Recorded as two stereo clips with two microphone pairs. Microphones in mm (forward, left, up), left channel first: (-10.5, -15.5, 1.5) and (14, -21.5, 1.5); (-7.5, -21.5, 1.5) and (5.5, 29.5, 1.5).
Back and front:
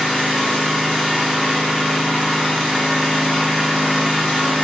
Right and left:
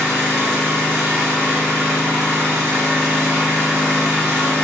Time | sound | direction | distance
0.0 | an engine running | 15° right | 1.4 m